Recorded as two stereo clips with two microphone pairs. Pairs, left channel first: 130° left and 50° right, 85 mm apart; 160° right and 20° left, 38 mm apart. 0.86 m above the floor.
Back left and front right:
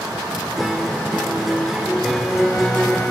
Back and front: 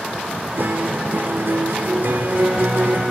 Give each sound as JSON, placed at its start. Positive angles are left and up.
{"t": 0.6, "sound": "a guitar", "azimuth_deg": 35, "distance_m": 2.0}